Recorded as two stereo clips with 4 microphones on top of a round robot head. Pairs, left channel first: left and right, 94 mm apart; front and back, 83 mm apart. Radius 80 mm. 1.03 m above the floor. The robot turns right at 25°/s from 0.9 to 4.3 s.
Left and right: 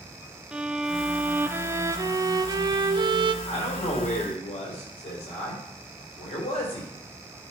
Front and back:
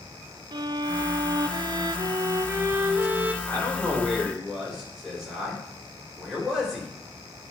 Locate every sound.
0.5 s a violin: 170° right, 0.6 m; by 3.3 s 110° right, 0.6 m
3.4 s a man speaking: 70° left, 4 m; by 6.9 s 95° left, 4 m